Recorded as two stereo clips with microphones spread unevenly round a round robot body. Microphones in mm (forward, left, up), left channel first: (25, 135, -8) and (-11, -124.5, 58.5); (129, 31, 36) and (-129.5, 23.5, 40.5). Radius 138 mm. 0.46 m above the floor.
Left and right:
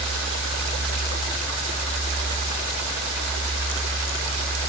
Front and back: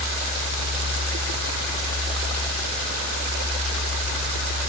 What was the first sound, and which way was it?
Only background noise.